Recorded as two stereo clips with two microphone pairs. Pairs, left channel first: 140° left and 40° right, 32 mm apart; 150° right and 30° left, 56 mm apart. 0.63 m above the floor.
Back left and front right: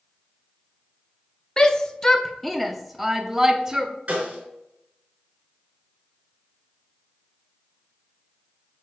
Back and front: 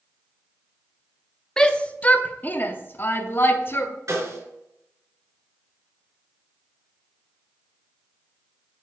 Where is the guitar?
No guitar in this recording.